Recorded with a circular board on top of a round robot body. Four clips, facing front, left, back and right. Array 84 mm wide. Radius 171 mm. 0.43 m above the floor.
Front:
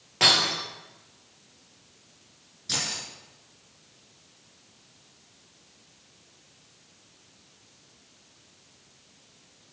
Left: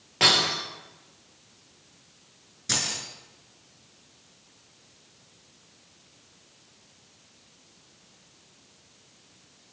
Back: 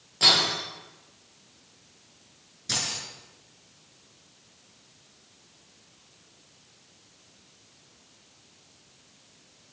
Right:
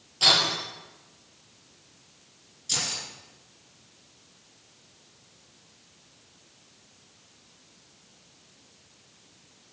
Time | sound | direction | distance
0.2 | breaking glass | 55° left | 7.5 m
2.7 | keys jangling | 100° left | 5.5 m